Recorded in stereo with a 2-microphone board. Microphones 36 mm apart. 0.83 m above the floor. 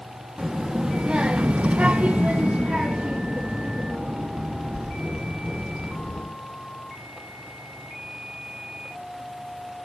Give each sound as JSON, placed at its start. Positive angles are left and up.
{"t": 0.4, "sound": "a child speaking", "side_deg": -15, "distance_m": 1.1}